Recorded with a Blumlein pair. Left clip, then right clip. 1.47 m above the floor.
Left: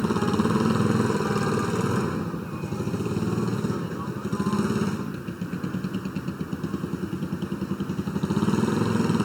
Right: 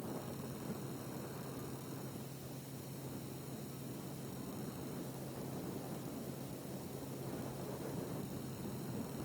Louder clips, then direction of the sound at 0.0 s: Left 21 dB; 45° left.